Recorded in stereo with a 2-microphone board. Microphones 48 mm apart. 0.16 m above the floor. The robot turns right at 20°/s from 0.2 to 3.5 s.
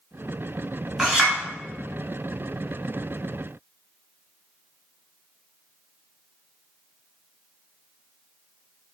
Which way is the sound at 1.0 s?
15° right (ahead or behind).